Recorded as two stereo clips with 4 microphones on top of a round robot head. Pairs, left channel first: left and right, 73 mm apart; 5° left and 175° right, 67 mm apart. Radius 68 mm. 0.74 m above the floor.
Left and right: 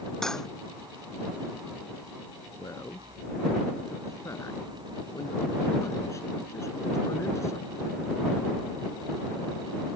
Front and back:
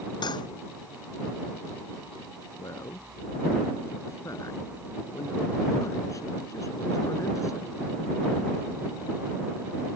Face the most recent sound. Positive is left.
turn(degrees=40)